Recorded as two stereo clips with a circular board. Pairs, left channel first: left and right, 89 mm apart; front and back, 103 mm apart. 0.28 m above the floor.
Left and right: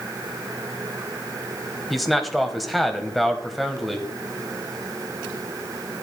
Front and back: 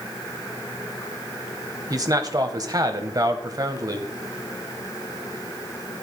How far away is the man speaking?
About 1.1 m.